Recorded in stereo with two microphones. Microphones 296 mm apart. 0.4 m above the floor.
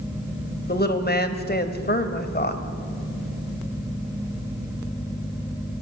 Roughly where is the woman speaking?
Left.